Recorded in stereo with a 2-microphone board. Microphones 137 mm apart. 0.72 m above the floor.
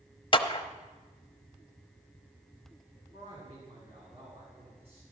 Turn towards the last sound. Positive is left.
turn(degrees=-45)  # may be behind; listen again after turning